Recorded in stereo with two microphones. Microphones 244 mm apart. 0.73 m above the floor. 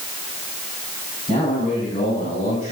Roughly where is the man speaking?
Left.